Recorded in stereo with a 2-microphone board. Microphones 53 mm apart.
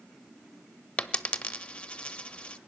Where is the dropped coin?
20° left (ahead or behind), 0.6 m.